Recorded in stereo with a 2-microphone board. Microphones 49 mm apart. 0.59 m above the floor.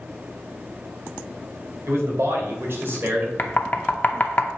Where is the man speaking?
70° right (ahead or behind), 2 m; by 3.3 s 40° right (ahead or behind), 2 m.